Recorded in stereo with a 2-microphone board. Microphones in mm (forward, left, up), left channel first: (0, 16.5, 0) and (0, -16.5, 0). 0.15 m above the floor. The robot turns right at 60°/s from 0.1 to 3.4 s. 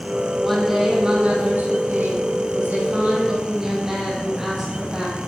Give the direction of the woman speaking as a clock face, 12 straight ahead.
7 o'clock.